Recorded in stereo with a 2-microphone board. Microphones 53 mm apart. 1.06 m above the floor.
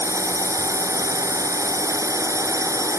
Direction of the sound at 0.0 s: 85° right.